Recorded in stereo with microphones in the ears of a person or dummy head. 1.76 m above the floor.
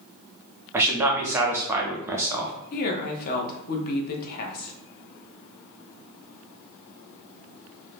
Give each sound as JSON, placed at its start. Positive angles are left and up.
{"t": 0.7, "sound": "a man speaking", "side_deg": -15, "distance_m": 0.7}
{"t": 2.7, "sound": "a woman speaking", "side_deg": 50, "distance_m": 0.7}